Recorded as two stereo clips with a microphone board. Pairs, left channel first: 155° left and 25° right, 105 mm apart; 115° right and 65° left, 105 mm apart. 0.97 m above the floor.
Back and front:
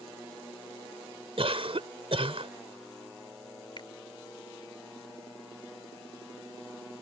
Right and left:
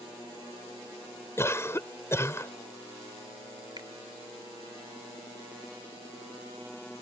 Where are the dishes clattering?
No dishes clattering in this recording.